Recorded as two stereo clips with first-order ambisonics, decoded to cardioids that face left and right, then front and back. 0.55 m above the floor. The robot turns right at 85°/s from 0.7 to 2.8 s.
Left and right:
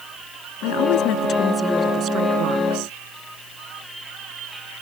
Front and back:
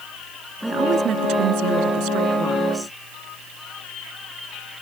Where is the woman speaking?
95° left; by 3.0 s 85° right.